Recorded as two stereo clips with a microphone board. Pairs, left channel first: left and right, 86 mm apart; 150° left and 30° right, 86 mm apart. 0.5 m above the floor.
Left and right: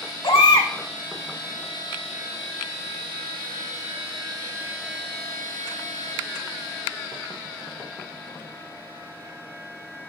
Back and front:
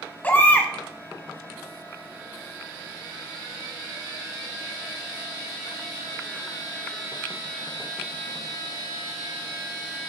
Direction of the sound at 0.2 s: 80° left.